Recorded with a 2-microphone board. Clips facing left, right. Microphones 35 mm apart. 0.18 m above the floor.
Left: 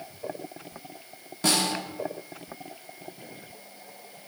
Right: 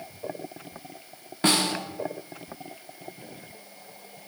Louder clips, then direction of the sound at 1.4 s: Right 2 dB; 30° right (ahead or behind).